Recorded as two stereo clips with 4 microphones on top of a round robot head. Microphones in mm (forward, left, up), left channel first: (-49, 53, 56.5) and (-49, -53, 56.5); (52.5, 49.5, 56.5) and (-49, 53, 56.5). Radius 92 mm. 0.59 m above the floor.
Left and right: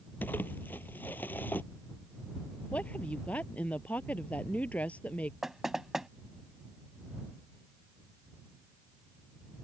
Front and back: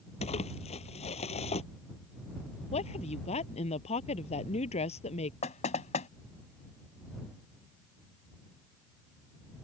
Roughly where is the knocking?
Ahead.